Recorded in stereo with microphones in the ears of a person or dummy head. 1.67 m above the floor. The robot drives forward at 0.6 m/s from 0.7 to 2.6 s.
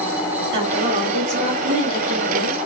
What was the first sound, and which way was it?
A woman speaking, 65° right (ahead or behind).